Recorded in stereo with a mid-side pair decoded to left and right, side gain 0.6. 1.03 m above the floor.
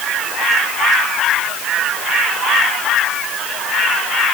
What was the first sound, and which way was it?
Only background noise.